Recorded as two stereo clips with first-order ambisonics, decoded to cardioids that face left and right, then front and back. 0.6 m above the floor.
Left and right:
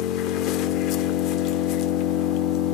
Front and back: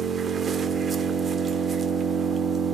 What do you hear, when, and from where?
0.0 s an engine running: 115° left, 0.9 m